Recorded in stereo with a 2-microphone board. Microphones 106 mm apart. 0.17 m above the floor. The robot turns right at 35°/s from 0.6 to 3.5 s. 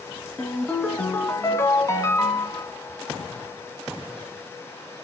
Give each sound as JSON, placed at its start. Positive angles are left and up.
{"t": 0.4, "sound": "a ringtone", "azimuth_deg": 20, "distance_m": 1.2}